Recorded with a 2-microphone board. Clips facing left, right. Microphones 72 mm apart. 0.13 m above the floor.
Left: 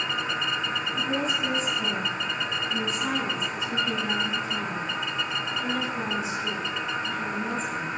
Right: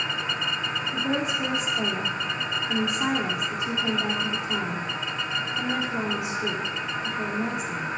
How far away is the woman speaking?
About 6 m.